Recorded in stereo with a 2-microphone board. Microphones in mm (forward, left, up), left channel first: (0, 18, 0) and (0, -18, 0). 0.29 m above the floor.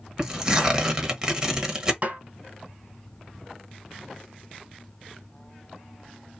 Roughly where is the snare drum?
Right.